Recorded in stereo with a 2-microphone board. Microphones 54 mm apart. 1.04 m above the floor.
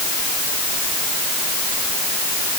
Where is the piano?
No piano in this recording.